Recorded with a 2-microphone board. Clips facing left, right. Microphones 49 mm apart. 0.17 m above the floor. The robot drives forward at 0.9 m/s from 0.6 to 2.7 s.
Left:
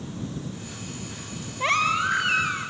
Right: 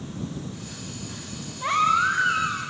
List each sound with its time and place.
1.6 s a baby crying: 65° left (ahead or behind), 1.9 m; by 2.7 s 70° left (ahead or behind), 1.8 m